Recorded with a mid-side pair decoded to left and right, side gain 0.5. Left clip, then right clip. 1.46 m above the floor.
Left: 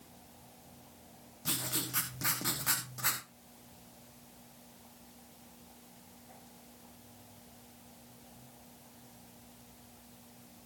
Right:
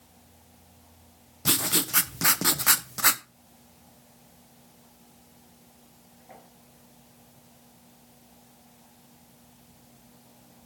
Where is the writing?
60° right, 1.1 m.